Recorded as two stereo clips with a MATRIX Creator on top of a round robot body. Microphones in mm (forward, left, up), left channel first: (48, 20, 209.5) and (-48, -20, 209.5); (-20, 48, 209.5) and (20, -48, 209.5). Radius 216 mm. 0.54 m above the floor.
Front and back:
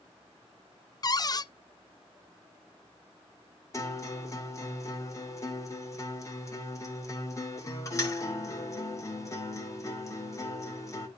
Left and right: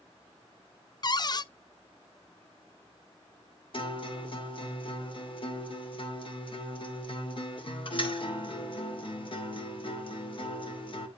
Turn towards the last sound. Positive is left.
turn(degrees=80)